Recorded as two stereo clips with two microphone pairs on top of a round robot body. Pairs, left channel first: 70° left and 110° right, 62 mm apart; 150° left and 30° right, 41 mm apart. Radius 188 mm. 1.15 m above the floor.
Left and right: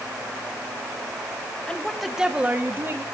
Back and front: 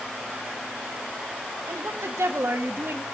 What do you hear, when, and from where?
1.7 s a woman speaking: 5° right, 1.9 m; by 3.0 s 60° right, 2.5 m